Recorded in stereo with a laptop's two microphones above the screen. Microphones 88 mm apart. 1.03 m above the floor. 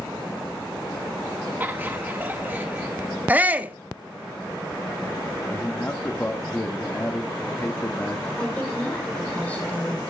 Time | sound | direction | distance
1.6 | laughter | 20° right (ahead or behind) | 1.4 m
3.3 | a shout | 20° right (ahead or behind) | 1.5 m
5.5 | a man speaking | 20° left (ahead or behind) | 1.7 m
8.4 | a woman speaking | 15° left (ahead or behind) | 3.5 m